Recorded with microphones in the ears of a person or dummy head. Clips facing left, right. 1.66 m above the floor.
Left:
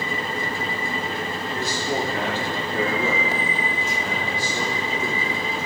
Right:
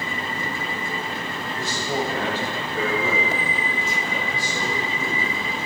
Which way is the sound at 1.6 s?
50° left (ahead or behind).